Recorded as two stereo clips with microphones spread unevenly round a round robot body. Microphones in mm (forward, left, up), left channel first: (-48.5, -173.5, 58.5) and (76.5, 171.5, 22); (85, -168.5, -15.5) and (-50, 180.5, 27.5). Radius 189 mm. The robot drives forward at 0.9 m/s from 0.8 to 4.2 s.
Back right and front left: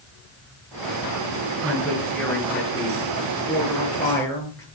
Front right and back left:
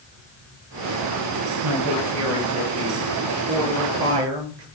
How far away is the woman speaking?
About 8 m.